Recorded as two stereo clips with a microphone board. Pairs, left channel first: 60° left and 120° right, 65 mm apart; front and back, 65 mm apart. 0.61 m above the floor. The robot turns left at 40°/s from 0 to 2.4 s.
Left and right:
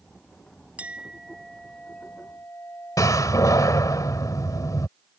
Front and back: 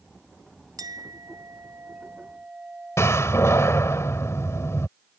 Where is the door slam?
40° left.